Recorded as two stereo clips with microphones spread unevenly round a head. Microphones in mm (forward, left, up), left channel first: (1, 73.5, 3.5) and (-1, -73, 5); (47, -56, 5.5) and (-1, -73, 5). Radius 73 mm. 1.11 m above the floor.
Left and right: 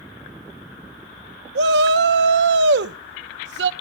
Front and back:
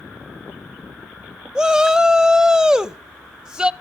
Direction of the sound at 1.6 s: 85° right.